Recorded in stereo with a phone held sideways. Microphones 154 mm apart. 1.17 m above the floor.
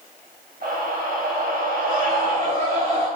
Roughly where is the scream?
Right.